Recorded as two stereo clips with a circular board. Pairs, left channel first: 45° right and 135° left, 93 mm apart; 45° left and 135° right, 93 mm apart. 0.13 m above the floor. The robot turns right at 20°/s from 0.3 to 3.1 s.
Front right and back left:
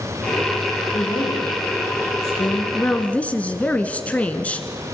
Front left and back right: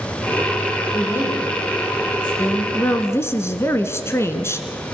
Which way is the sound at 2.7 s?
10° left.